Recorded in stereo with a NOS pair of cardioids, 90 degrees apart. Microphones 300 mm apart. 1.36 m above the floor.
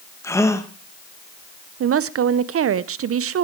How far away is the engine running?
I don't hear an engine running.